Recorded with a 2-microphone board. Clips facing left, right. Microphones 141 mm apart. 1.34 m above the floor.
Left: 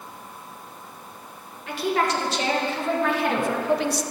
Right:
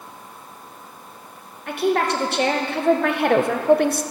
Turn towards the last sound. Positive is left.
turn(degrees=-60)  # may be behind; listen again after turning